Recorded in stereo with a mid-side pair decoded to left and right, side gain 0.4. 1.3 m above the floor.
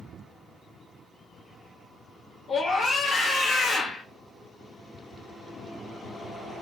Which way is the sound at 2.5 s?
60° left.